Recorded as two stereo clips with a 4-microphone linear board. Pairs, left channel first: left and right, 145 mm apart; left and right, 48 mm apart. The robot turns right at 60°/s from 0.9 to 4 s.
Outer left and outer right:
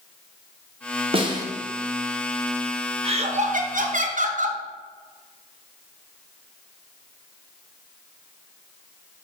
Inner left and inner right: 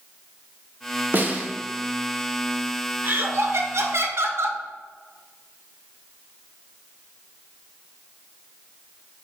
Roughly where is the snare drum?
Right.